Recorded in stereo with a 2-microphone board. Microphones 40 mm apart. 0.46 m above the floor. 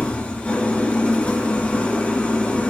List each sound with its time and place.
0.0 s an engine running: 35° left (ahead or behind), 3.5 m